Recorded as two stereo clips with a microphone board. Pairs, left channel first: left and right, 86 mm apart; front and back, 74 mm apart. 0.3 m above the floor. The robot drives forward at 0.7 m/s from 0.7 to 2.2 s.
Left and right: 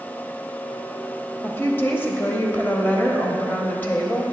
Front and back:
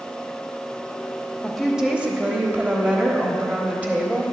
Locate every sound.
1.4 s a woman speaking: 80° left, 1.1 m; by 4.2 s 135° left, 1.2 m